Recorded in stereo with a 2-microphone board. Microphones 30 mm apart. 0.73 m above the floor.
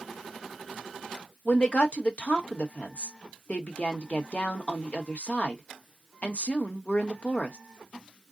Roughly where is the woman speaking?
Left.